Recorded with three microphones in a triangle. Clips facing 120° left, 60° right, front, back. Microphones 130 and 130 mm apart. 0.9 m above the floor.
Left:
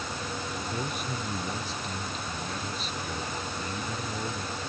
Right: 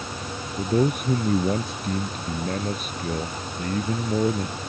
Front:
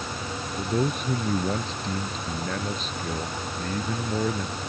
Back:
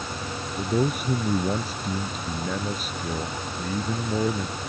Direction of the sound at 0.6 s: 95° right.